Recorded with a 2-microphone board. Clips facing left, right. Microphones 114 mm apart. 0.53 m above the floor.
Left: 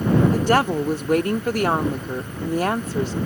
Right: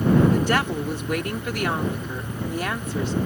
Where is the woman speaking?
35° left (ahead or behind).